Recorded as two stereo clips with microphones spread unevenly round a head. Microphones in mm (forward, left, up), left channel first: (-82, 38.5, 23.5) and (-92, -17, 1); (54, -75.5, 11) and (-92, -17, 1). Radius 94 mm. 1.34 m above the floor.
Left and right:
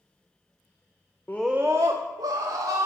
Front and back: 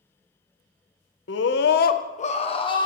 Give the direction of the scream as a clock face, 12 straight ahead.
12 o'clock.